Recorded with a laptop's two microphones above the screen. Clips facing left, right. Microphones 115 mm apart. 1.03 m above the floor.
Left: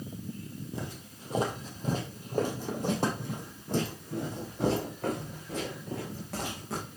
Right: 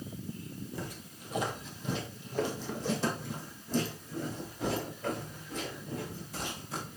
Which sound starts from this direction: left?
Footsteps, at 0.7 s.